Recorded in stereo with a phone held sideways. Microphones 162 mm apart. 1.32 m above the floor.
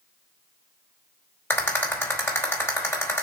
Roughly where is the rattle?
Centre.